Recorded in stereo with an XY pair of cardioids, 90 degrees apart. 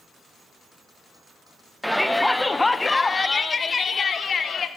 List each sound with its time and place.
1.8 s a shout: straight ahead, 1.3 m; by 4.7 s 55° left, 2 m